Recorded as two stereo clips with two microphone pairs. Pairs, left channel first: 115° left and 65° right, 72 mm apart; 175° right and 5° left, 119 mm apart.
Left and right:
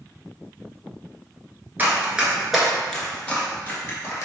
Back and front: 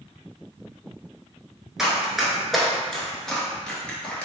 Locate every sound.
1.8 s running footsteps: 75° right, 1.1 m; by 4.3 s 115° left, 1.3 m